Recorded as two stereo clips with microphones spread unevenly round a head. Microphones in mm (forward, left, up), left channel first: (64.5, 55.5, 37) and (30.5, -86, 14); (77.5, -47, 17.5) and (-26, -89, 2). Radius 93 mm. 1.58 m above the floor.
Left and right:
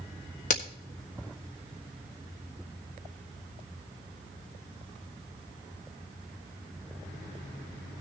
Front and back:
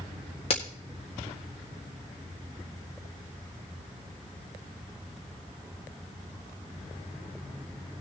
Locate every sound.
0.5 s a crack: 65° left, 1.5 m